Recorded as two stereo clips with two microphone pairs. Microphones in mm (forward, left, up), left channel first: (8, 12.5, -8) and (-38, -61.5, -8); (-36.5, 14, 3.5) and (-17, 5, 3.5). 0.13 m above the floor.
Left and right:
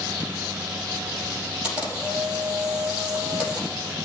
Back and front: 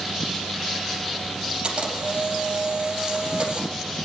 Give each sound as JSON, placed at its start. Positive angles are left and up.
{"t": 1.6, "sound": "a camera shutter", "azimuth_deg": -45, "distance_m": 4.5}